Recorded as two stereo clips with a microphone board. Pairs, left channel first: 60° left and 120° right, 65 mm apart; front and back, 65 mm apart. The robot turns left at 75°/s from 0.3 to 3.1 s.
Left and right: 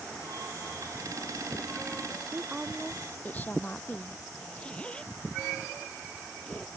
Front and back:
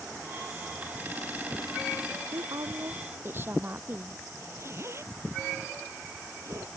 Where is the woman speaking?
175° right; by 4.2 s 125° left.